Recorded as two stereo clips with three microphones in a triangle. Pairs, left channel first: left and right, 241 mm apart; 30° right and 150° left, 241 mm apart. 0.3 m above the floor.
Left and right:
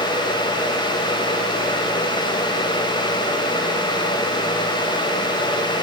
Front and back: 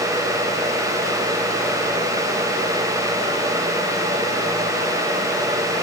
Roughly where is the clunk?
I don't hear a clunk.